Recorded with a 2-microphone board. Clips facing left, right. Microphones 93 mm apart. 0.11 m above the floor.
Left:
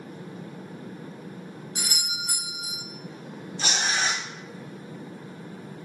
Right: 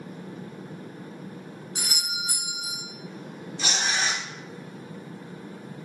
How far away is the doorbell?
About 1.8 m.